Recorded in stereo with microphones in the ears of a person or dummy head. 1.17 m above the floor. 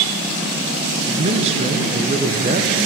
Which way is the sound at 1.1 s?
35° right (ahead or behind).